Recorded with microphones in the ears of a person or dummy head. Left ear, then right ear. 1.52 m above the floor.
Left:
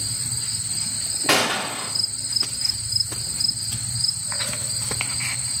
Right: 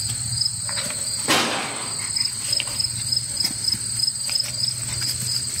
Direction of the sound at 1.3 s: 15° left (ahead or behind).